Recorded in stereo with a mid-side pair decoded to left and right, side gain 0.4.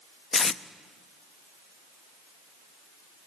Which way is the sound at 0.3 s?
45° left.